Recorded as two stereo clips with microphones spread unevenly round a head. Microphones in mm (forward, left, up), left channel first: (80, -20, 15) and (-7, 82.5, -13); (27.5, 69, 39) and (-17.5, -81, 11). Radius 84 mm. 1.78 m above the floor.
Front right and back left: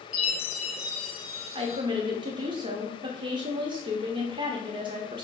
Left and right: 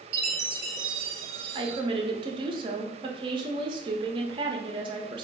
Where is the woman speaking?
170° right, 0.7 m.